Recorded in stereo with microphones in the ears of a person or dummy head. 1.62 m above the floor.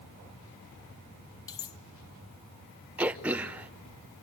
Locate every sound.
1.5 s cutlery clinking: 20° left (ahead or behind), 1.1 m
3.0 s throat clearing: 5° right (ahead or behind), 0.7 m